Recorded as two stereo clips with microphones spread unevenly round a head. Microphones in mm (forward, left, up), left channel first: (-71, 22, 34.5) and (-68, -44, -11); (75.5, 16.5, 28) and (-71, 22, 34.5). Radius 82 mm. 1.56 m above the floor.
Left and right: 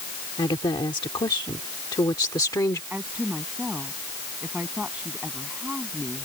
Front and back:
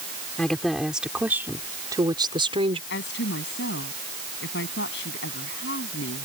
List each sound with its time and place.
0.4 s a woman speaking: 80° left; by 2.8 s 125° left
2.9 s a woman speaking: straight ahead